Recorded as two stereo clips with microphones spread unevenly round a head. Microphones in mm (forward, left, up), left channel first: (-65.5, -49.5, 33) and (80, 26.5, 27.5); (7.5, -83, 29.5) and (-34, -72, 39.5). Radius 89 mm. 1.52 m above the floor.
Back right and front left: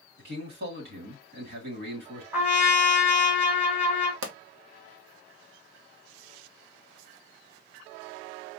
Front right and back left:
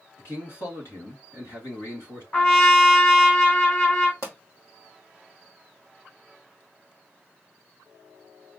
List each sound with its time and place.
0.2 s a man speaking: 5° left, 2 m
2.3 s a trumpet: 50° right, 1.6 m
4.2 s a pop: 30° left, 0.9 m